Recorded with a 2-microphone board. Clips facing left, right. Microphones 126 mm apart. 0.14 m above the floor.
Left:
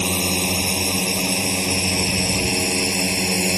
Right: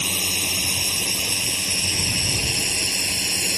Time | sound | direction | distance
0.0 | a drone | 55° left (ahead or behind) | ?